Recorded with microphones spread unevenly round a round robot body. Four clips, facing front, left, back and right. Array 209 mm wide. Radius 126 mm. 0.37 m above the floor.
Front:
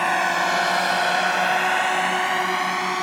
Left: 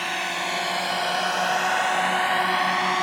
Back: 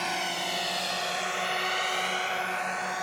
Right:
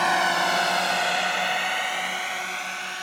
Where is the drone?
35° right; by 3.0 s 45° left.